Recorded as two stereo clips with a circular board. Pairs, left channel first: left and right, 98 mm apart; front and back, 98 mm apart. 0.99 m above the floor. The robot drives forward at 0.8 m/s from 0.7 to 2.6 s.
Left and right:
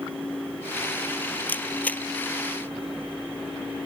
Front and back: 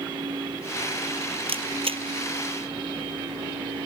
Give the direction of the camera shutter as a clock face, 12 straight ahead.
7 o'clock.